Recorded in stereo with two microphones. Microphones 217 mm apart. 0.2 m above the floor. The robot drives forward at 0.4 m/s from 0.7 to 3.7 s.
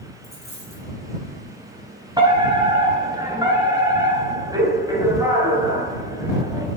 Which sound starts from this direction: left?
A dropped coin, at 0.2 s.